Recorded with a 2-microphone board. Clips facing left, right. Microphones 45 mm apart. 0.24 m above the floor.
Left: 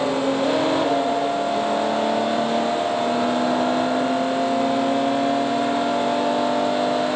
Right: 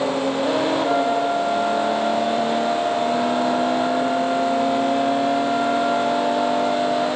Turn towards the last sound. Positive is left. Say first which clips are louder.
# right 1 dB
turn(degrees=-70)  # may be behind; listen again after turning